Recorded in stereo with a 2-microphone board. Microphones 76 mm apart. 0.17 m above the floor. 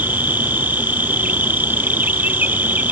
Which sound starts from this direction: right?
An insect, at 0.0 s.